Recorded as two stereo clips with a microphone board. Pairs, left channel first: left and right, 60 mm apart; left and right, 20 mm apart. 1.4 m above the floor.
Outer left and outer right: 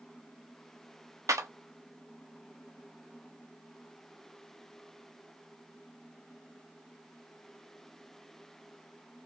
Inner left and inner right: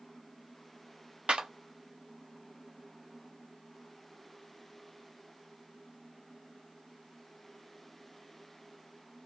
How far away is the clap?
About 0.7 m.